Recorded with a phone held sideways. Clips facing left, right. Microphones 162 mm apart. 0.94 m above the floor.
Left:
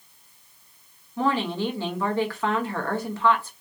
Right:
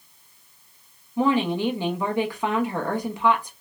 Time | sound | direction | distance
1.2 | a woman speaking | 15° right (ahead or behind) | 1.0 m